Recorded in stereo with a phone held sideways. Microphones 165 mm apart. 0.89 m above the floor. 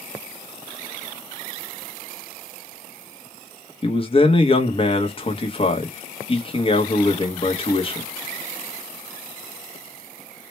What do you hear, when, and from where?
3.8 s a man speaking: 35° left (ahead or behind), 0.8 m